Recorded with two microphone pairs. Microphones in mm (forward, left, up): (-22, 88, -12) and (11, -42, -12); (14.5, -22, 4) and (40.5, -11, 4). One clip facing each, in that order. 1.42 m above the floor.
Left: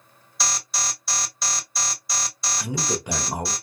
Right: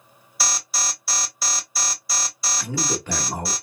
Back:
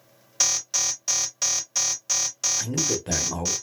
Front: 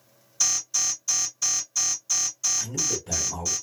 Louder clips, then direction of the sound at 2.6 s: Even, back 3 dB; 175° left.